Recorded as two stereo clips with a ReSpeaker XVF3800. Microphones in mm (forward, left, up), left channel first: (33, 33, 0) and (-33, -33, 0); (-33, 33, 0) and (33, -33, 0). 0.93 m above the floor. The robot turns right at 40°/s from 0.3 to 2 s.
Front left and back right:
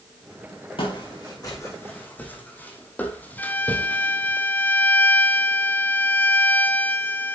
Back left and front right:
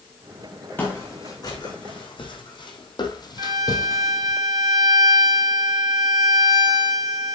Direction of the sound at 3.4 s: 20° right.